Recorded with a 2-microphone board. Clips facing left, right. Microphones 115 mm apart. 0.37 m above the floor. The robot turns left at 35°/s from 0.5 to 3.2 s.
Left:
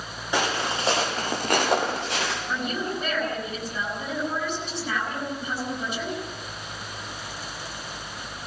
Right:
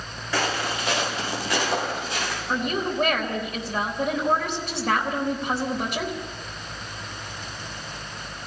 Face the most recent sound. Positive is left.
turn(degrees=-60)  # may be behind; listen again after turning